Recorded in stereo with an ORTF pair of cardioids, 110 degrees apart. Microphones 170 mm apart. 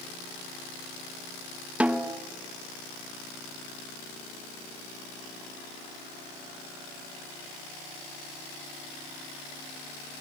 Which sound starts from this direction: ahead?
A snare drum, at 1.8 s.